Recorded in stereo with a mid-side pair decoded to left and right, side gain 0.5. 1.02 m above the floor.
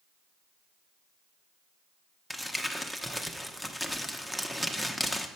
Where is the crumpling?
Straight ahead, 0.9 m.